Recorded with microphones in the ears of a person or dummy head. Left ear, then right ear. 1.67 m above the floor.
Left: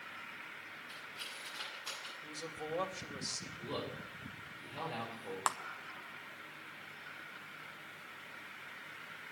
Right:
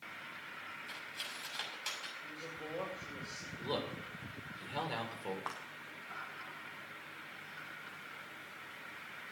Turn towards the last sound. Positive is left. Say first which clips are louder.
# left 11 dB
turn(degrees=45)  # may be behind; listen again after turning